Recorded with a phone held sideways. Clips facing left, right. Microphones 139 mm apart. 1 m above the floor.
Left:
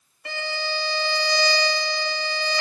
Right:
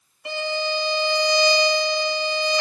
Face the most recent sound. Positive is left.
turn(degrees=-20)  # may be behind; listen again after turning